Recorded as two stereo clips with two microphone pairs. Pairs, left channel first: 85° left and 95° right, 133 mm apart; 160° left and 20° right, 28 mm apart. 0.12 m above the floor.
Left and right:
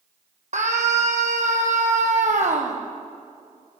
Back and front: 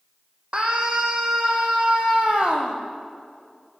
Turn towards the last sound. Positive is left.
turn(degrees=-70)